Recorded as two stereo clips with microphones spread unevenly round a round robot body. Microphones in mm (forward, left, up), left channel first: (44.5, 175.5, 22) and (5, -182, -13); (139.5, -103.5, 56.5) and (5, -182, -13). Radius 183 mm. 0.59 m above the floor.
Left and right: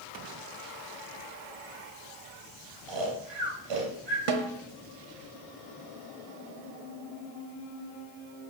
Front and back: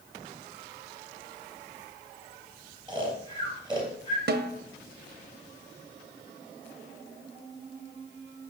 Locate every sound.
2.9 s snoring: 80° right, 3 m
4.3 s a snare drum: 125° right, 0.9 m